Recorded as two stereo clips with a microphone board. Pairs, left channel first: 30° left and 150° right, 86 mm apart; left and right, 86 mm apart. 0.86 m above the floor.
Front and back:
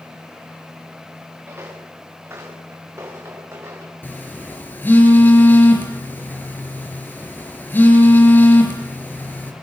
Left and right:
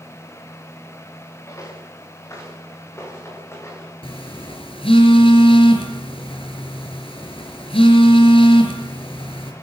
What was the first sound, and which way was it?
Footsteps, 145° left.